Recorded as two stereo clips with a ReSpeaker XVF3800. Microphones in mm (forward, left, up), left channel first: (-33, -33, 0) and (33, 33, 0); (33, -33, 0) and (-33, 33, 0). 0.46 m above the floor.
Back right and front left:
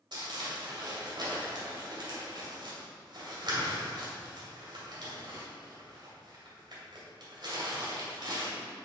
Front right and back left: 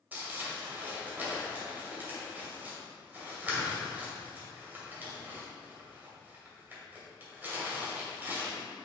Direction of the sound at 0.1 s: 70° left.